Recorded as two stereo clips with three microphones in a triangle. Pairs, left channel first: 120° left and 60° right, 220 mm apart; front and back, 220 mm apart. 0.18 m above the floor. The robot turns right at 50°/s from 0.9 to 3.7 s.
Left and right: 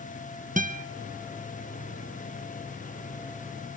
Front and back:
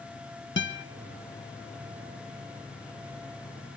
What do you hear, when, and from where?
0.6 s a guitar: 15° right, 0.7 m